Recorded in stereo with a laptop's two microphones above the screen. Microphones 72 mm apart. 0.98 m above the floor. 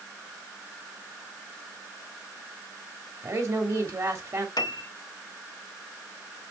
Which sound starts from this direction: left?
A piano, at 4.6 s.